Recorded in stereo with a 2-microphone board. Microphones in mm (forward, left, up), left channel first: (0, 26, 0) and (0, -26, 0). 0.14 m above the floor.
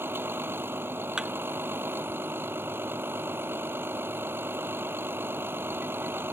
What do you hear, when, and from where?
0.0 s a vehicle: 45° right (ahead or behind)
1.2 s a thud: 15° right (ahead or behind)